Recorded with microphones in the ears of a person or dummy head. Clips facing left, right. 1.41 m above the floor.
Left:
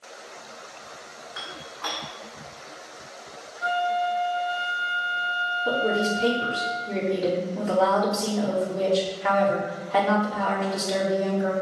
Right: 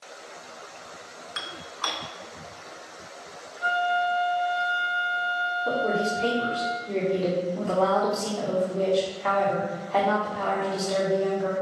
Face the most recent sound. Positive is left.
turn(degrees=10)  # may be behind; listen again after turning